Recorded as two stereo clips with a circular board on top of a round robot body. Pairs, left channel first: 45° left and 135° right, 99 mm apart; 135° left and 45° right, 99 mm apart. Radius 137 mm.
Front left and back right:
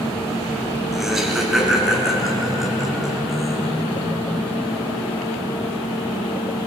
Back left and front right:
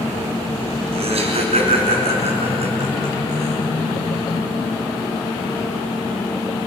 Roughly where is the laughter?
Ahead right.